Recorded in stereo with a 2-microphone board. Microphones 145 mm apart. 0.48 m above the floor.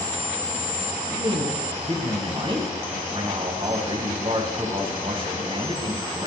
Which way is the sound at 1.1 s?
40° right (ahead or behind).